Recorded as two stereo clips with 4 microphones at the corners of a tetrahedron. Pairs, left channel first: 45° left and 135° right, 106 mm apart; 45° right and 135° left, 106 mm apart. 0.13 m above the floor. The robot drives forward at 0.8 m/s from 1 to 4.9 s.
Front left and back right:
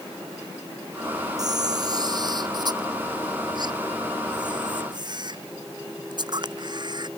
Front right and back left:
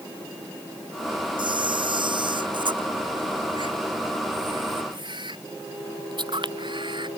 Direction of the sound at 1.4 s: 175° left.